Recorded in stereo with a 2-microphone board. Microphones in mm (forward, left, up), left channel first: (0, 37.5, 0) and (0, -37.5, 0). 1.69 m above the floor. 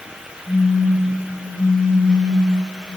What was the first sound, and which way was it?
A phone buzzing, 55° left (ahead or behind).